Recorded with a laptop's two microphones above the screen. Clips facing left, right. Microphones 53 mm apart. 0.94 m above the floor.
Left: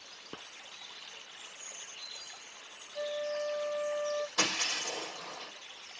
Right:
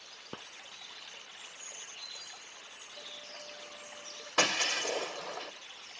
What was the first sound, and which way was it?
A flute, 45° left (ahead or behind).